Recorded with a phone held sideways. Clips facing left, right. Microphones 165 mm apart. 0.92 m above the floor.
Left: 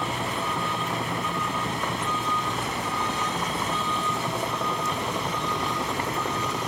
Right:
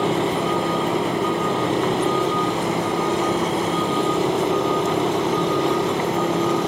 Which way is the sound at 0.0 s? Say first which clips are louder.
Right 10 dB; 75° right (ahead or behind).